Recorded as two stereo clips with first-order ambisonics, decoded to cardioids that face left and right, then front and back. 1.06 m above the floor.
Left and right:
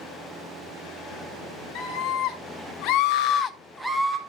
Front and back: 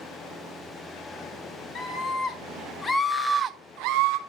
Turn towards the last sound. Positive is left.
turn(degrees=-160)